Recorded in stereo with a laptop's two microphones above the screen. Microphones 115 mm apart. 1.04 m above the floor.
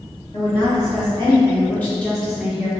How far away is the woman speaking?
About 1.7 m.